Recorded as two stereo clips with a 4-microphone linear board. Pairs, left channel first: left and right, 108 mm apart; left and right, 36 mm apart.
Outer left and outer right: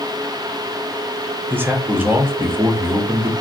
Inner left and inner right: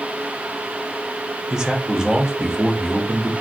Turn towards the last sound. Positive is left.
turn(degrees=-20)  # may be behind; listen again after turning